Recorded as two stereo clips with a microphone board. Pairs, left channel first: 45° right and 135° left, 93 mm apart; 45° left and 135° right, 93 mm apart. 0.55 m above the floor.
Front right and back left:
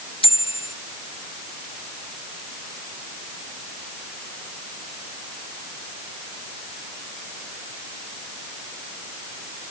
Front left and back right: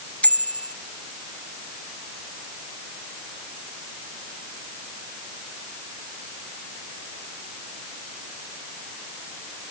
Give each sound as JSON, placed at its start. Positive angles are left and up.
{"t": 0.2, "sound": "a bicycle bell", "azimuth_deg": -30}